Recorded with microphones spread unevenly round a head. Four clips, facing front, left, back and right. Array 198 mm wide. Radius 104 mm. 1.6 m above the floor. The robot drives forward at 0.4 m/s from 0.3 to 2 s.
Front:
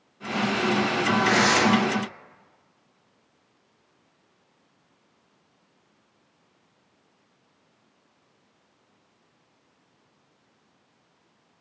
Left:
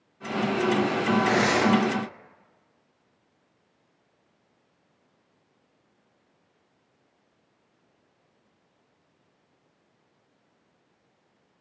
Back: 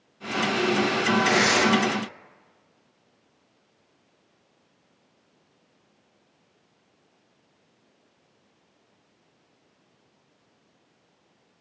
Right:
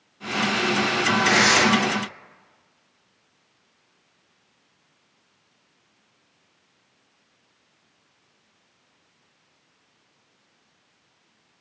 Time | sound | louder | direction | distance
1.2 | tearing paper | right 5 dB, front 3 dB | 175° left | 1.9 m